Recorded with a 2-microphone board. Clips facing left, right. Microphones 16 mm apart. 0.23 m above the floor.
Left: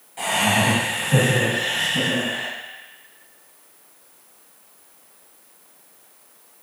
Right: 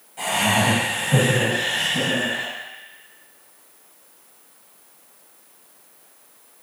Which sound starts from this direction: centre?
Laughter, at 0.2 s.